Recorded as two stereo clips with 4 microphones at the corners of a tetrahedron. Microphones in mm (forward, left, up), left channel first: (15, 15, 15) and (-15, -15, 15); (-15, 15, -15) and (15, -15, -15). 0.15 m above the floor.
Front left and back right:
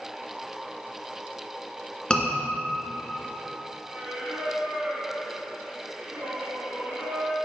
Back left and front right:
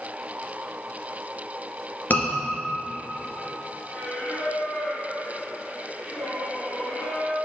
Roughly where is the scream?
Left.